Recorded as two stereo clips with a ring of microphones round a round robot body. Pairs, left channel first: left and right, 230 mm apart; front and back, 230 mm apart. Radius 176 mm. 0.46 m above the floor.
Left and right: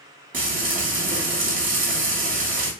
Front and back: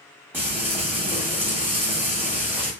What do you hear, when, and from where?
0.3 s frying: 105° right, 1.0 m